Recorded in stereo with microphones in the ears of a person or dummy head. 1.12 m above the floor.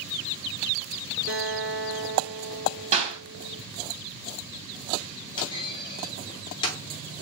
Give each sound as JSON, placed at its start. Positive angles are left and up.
{"t": 1.3, "sound": "a guitar", "side_deg": -55, "distance_m": 2.5}
{"t": 2.9, "sound": "a clap", "side_deg": -35, "distance_m": 2.5}
{"t": 5.4, "sound": "a clunk", "side_deg": 25, "distance_m": 1.1}